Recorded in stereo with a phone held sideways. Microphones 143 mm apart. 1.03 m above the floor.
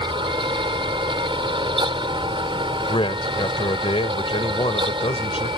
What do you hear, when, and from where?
0.0 s a fan: 35° right (ahead or behind)
2.9 s a man speaking: 40° left (ahead or behind)